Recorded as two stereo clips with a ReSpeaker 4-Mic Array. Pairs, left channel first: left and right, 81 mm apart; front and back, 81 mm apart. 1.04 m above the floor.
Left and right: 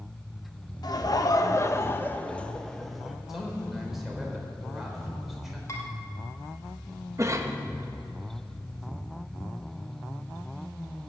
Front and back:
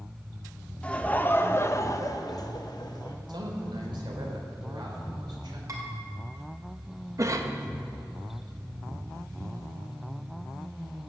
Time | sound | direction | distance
0.8 | laughter | 75° left | 1.2 m
3.3 | a man speaking | 175° right | 3.5 m
5.7 | dishes clattering | 140° left | 3 m
7.2 | a cough | 135° right | 1.2 m